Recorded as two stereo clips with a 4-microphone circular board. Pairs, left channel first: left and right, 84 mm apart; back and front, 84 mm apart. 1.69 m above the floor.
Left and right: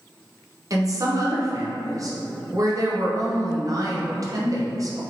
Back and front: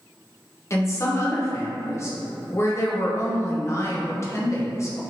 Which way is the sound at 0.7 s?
130° right.